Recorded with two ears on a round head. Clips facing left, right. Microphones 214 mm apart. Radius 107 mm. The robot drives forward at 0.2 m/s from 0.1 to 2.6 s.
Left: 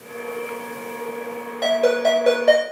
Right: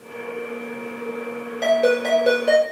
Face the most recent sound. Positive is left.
turn(degrees=-10)  # may be behind; listen again after turning